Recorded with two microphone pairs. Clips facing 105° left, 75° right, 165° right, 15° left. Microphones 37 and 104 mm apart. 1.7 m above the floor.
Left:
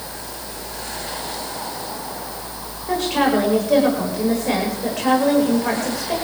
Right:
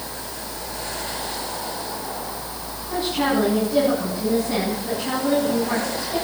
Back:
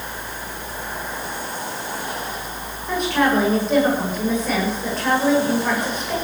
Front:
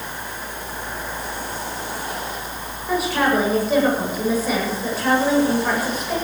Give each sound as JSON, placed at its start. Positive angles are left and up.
{"t": 2.9, "sound": "a woman speaking", "azimuth_deg": 100, "distance_m": 9.0}